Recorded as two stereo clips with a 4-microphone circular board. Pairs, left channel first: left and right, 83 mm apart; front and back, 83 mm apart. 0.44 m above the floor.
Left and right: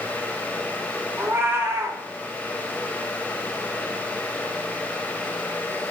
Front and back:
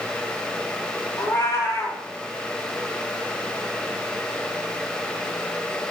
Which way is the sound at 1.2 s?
40° right.